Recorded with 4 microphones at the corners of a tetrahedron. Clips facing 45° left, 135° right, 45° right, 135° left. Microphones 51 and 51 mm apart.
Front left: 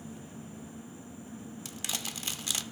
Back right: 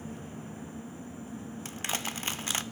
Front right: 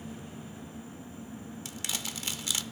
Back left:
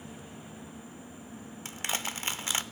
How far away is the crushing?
About 0.5 m.